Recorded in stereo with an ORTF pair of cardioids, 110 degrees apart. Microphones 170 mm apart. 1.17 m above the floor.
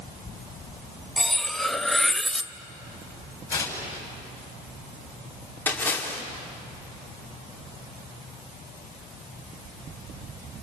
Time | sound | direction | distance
1.2 | cutlery clinking | straight ahead | 0.8 m
3.5 | tearing paper | 20° left | 7 m
5.7 | a splash | 10° left | 4 m